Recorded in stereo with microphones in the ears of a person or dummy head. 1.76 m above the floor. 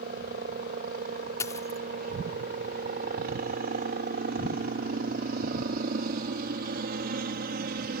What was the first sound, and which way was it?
A helicopter, 55° right (ahead or behind).